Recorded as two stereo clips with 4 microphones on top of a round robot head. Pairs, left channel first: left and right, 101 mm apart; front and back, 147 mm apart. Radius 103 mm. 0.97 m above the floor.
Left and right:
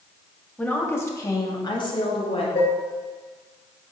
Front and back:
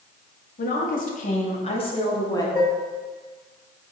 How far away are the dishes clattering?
About 3.5 m.